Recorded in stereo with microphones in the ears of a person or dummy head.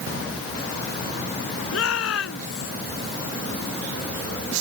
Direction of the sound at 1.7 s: 90° left.